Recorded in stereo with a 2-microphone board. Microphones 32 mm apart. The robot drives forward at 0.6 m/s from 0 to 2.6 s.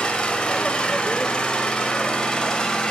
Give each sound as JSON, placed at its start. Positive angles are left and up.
{"t": 0.0, "sound": "an engine running", "side_deg": 30, "distance_m": 1.7}